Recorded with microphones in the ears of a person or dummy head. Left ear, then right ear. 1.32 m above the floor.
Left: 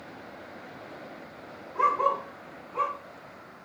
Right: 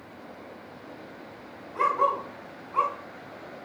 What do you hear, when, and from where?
1.8 s a dog barking: 60° right (ahead or behind), 1.9 m; by 3.6 s 55° right (ahead or behind), 3 m